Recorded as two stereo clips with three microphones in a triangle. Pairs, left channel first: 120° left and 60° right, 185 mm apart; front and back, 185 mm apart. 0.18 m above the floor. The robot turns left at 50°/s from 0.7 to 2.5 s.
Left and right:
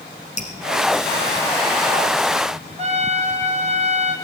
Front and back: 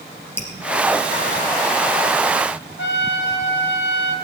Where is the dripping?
75° left, 2 m.